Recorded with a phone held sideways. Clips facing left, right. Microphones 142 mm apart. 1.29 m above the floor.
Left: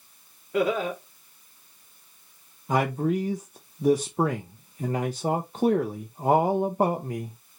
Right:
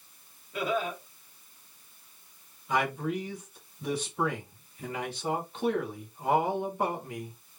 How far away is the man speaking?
About 0.7 m.